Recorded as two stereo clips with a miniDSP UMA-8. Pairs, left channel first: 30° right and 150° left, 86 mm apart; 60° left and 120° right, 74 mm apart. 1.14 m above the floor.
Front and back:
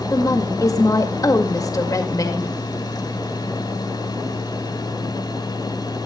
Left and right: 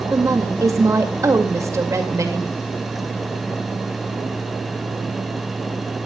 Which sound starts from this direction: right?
A woman speaking, at 0.1 s.